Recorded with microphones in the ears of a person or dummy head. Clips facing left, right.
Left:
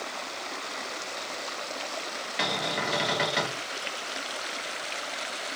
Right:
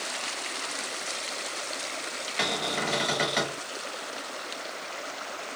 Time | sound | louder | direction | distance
2.4 | a cupboard door | even | 5° left (ahead or behind) | 0.6 m